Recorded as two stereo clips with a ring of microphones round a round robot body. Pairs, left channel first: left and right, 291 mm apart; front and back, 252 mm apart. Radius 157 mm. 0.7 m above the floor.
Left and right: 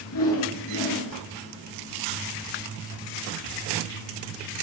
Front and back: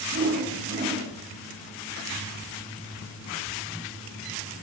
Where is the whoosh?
130° left, 7.5 m.